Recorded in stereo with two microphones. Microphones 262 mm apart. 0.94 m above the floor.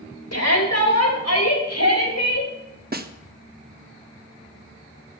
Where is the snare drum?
35° right (ahead or behind), 0.8 m.